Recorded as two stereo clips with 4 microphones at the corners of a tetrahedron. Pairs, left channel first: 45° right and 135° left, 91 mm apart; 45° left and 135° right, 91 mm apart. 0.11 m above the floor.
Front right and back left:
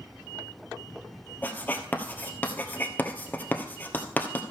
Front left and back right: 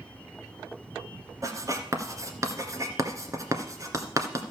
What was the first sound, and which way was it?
Writing, 105° right.